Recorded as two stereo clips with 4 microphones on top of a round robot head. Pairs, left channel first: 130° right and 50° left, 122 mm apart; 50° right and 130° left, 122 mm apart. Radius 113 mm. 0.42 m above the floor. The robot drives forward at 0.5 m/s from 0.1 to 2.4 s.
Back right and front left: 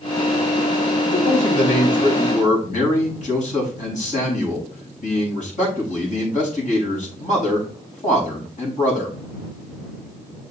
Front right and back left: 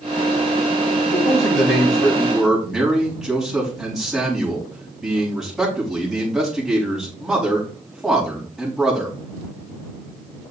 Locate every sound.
1.1 s a man speaking: 135° right, 4.5 m; by 9.2 s 140° right, 5 m